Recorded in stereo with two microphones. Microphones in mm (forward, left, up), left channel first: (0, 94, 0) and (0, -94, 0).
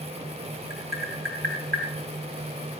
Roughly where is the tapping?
Right.